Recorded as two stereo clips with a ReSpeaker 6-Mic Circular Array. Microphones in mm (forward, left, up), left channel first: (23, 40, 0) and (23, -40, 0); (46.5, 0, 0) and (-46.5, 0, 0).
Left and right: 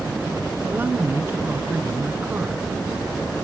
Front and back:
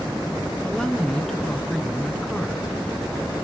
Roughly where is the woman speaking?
Right.